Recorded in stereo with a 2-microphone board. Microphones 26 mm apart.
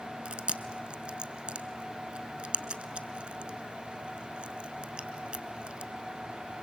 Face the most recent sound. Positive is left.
turn(degrees=-50)  # may be behind; listen again after turning